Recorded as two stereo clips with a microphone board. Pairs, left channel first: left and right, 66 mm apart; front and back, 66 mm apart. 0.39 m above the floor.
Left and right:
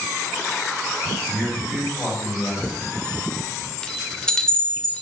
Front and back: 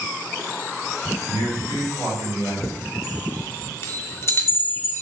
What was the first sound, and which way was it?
A man speaking, 160° left.